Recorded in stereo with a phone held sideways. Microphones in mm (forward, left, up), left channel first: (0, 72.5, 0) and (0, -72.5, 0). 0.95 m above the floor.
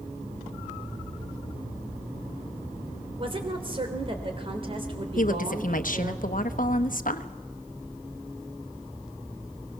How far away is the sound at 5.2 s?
About 1.1 m.